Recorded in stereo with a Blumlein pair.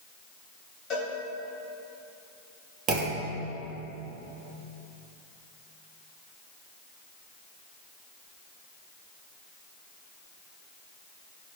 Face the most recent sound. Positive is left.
turn(degrees=-25)